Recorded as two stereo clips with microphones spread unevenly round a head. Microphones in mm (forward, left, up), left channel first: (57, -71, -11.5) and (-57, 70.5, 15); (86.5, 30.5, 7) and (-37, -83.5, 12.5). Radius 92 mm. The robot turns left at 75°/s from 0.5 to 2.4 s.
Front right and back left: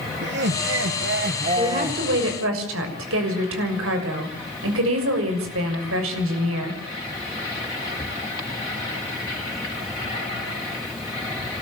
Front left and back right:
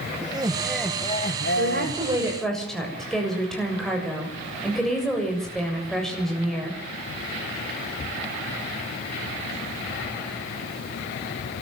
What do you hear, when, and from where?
0.2 s laughter: 150° left, 1.7 m; by 2.0 s 35° left, 1.7 m
1.6 s a woman speaking: 165° right, 7 m; by 6.8 s 130° left, 7 m